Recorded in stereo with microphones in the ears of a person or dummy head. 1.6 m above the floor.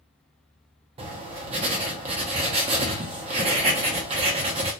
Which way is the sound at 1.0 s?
35° right (ahead or behind).